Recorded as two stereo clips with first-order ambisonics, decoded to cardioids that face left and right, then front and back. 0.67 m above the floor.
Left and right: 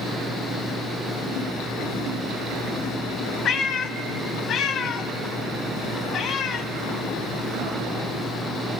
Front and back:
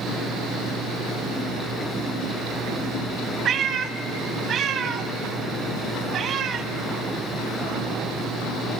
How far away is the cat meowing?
About 0.7 m.